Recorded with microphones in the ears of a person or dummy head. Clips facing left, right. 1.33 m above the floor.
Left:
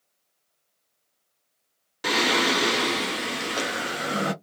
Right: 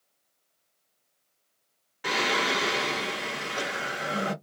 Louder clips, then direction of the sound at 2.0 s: Left 5 dB; 50° left (ahead or behind).